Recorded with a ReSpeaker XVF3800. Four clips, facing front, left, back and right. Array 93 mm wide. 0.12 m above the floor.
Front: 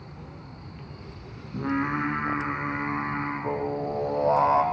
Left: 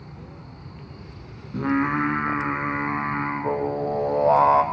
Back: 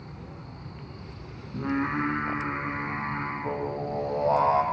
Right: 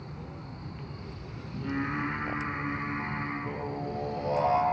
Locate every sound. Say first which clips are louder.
1.5 s singing: left 10 dB, front 1 dB; 80° left, 3 m